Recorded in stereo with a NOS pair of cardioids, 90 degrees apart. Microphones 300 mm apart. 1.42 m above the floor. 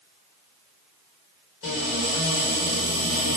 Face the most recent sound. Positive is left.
turn(degrees=50)